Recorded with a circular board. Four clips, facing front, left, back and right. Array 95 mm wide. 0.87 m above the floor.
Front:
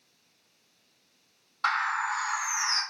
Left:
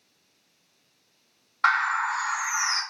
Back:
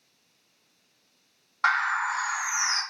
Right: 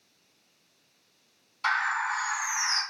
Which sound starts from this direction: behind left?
A bird, at 1.6 s.